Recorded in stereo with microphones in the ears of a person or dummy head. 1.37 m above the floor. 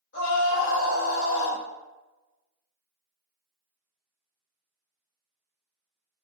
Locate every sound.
0.1 s a scream: 60° left (ahead or behind), 1.2 m